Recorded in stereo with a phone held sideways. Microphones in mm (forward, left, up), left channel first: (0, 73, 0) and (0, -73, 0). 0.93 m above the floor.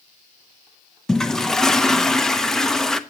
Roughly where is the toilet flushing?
Centre.